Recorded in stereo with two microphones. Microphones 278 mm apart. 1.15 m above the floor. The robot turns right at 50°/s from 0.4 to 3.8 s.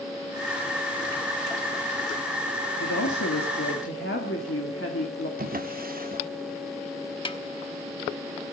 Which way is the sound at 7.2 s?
20° left (ahead or behind).